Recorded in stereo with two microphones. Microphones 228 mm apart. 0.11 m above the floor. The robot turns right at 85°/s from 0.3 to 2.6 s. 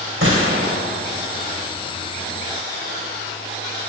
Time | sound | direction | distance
0.2 | a gunshot | 60° right | 4.5 m